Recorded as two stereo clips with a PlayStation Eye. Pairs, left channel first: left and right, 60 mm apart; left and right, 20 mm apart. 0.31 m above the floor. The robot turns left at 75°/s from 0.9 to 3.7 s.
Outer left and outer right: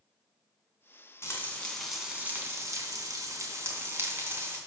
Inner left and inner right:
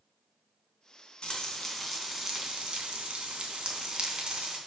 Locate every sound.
1.2 s frying: 50° left, 2.5 m; by 4.6 s 135° right, 2.5 m